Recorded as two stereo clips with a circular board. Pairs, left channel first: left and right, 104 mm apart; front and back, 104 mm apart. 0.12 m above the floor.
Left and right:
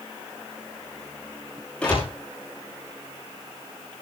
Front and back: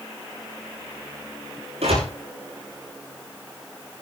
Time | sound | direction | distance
1.8 | a door slam | 170° left | 9 m